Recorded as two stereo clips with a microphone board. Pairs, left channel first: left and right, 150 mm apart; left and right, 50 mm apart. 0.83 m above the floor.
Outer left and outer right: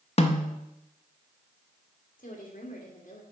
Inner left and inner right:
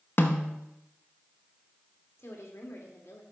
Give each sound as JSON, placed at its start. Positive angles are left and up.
{"t": 0.2, "sound": "a snare drum", "side_deg": 45, "distance_m": 0.7}
{"t": 2.2, "sound": "a woman speaking", "side_deg": 65, "distance_m": 1.9}